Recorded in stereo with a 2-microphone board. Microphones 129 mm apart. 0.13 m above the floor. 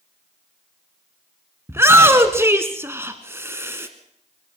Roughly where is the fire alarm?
I don't hear a fire alarm.